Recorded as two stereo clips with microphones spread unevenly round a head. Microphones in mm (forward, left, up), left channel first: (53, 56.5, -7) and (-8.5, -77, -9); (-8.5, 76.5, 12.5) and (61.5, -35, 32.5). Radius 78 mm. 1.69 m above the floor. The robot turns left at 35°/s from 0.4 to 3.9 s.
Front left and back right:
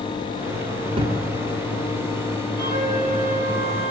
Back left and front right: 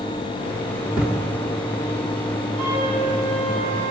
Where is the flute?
80° right, 6.5 m; by 3.9 s 125° right, 6.5 m.